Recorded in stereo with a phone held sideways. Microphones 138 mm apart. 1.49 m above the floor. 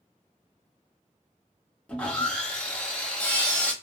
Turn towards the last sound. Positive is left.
turn(degrees=5)  # may be behind; listen again after turning